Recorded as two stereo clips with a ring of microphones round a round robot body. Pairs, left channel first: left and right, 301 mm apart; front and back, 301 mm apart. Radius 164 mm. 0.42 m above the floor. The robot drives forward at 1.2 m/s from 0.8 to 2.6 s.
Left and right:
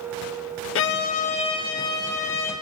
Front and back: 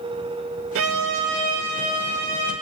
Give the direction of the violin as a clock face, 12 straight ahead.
7 o'clock.